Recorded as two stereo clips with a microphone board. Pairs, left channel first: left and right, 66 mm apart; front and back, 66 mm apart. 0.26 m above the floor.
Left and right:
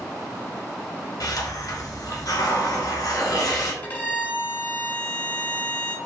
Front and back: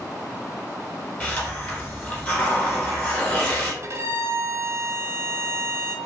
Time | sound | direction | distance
1.2 | a hiss | 65° left | 1.1 m
3.8 | a violin | 145° left | 0.6 m